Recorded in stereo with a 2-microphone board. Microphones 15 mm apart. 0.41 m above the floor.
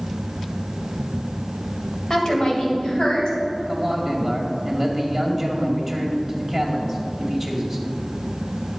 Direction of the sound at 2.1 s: 45° left (ahead or behind).